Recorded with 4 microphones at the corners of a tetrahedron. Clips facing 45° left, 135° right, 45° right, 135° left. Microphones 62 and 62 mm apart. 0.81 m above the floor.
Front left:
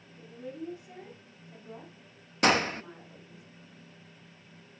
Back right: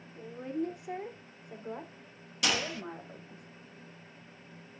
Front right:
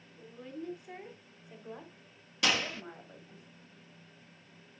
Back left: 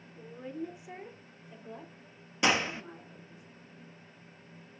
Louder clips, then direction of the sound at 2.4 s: Front left 7 dB, back left 3 dB; 75° left.